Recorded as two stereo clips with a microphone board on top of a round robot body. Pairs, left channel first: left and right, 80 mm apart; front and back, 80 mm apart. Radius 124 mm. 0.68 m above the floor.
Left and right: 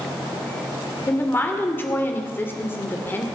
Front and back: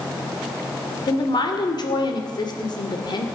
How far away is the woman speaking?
About 2.5 m.